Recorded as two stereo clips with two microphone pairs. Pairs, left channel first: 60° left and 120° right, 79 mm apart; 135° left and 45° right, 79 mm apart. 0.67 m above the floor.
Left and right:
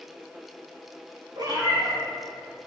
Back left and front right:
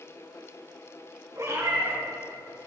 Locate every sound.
1.4 s a cat meowing: 90° right, 3 m